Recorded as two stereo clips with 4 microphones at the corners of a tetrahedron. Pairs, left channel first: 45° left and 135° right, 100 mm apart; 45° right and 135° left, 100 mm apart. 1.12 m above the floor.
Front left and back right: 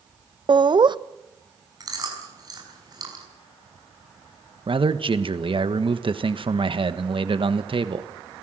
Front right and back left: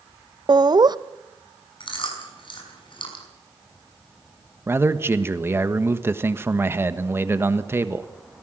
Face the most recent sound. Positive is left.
turn(degrees=-160)